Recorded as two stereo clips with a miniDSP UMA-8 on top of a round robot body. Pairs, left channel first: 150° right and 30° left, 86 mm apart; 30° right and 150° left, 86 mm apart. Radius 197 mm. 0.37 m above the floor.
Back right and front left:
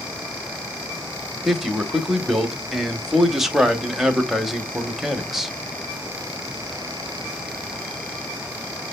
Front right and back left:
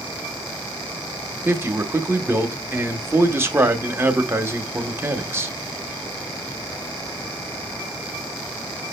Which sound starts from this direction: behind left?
A man speaking, at 1.4 s.